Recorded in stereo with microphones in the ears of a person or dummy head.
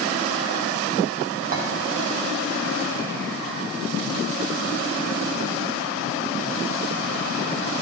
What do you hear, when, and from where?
1.5 s a clink: 40° right (ahead or behind), 1.3 m